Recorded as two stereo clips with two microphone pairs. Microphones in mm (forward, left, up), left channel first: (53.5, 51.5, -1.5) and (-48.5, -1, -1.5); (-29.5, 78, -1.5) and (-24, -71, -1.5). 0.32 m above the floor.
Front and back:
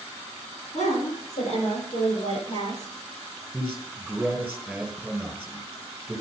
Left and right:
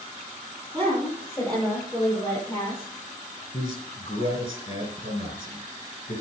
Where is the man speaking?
130° left, 4 m.